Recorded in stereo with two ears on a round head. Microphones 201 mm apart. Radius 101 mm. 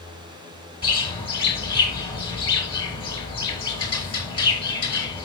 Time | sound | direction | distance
0.8 | a bird | 25° left (ahead or behind) | 7 m